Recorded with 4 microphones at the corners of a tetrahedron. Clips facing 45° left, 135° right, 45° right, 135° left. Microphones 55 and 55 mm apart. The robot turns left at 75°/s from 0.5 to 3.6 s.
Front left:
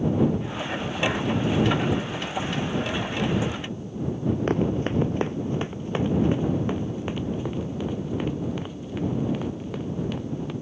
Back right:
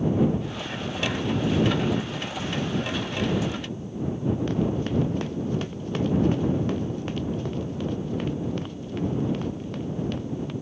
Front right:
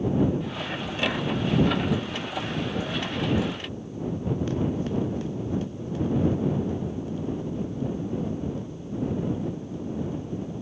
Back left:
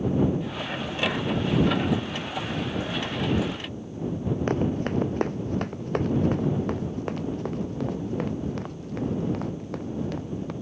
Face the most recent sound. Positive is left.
turn(degrees=130)